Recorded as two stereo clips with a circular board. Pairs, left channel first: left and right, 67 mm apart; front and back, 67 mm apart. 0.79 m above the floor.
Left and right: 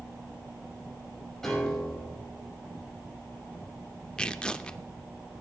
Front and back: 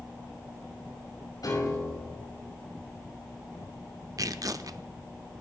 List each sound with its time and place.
1.4 s a piano: 5° left, 5.5 m
4.2 s tearing paper: 165° left, 0.6 m